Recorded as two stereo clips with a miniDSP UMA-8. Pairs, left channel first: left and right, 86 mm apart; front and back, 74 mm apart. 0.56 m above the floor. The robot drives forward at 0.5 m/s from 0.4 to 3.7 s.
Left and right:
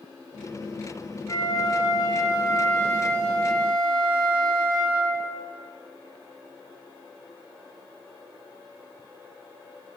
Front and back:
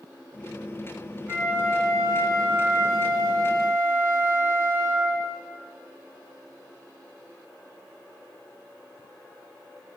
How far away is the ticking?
No ticking in this recording.